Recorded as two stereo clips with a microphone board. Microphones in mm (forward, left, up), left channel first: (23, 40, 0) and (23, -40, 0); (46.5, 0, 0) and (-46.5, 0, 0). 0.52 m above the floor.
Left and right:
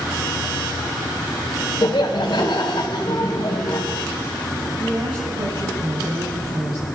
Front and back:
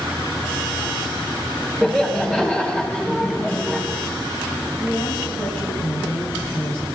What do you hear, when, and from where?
1.8 s laughter: 95° left, 2 m
4.8 s a woman speaking: 75° right, 4.5 m